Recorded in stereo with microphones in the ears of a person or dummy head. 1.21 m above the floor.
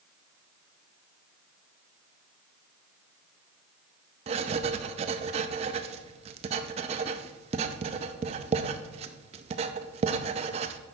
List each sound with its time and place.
4.3 s writing: 30° right (ahead or behind), 0.5 m